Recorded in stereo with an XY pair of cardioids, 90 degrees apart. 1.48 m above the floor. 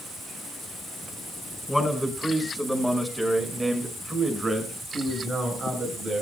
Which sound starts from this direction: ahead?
A man speaking, at 1.7 s.